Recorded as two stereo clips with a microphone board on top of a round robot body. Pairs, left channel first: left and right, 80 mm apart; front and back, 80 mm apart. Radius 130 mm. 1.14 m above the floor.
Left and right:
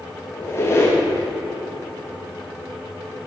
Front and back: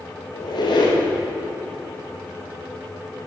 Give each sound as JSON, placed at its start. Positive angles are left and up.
{"t": 0.3, "sound": "a squeak", "azimuth_deg": 30, "distance_m": 1.9}